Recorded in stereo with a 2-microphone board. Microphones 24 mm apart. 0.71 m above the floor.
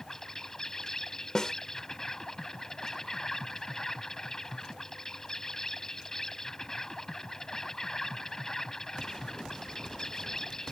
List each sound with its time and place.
0.0 s an insect: 25° left (ahead or behind)
1.4 s a snare drum: 25° left (ahead or behind)